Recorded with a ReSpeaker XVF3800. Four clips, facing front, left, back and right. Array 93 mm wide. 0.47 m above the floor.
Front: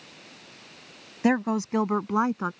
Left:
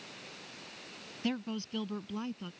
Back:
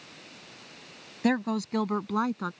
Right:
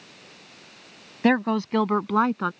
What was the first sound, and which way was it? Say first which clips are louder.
A woman speaking: right 15 dB, front 3 dB; 70° right.